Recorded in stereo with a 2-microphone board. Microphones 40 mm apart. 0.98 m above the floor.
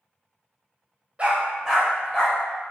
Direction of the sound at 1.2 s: 30° right (ahead or behind).